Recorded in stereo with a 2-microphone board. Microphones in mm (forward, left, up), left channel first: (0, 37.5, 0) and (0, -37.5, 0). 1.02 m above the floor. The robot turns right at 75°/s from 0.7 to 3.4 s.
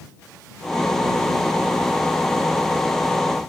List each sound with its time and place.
Only background noise.